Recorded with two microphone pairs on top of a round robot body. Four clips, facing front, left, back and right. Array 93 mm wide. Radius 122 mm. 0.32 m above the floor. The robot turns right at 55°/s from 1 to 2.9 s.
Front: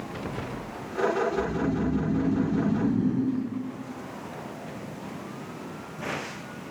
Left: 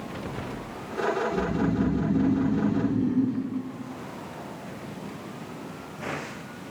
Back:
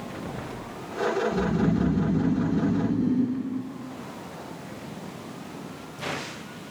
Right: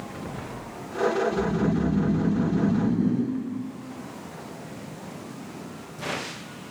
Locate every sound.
1.3 s snoring: 175° right, 1.6 m; by 3.4 s 90° right, 1.6 m